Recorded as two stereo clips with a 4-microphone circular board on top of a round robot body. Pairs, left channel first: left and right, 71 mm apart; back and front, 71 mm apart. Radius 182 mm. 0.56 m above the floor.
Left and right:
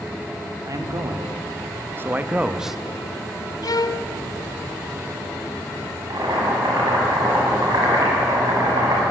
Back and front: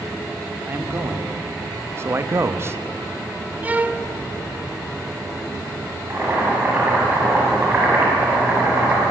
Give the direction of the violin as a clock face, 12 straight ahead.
10 o'clock.